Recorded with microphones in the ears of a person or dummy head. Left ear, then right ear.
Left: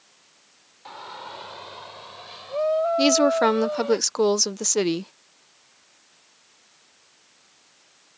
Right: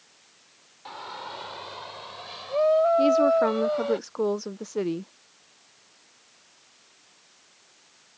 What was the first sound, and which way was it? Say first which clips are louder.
A shout: even; 5° right (ahead or behind).